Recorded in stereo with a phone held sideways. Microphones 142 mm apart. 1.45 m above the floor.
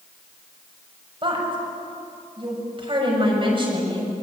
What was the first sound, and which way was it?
A woman speaking, 35° right (ahead or behind).